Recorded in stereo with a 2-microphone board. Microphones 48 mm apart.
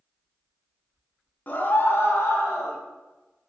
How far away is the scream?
About 1.2 m.